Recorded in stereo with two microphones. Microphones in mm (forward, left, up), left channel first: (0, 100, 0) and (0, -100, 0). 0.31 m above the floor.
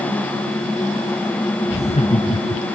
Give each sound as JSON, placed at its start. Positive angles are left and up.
{"t": 1.7, "sound": "laughter", "side_deg": 35}